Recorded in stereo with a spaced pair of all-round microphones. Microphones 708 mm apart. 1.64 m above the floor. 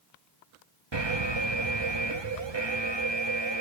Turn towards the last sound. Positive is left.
turn(degrees=-35)  # may be behind; listen again after turning